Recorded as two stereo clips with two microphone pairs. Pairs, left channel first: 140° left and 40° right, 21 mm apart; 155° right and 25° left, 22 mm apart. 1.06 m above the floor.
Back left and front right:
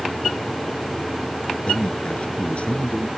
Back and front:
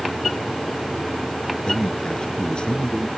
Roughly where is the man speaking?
Behind left.